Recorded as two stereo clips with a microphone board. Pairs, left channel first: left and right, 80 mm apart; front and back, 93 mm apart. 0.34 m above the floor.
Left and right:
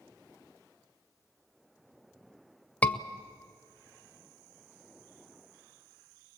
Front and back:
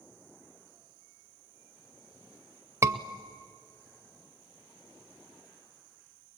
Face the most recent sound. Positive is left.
turn(degrees=145)